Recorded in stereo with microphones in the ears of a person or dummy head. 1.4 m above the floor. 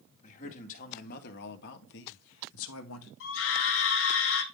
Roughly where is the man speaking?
Left.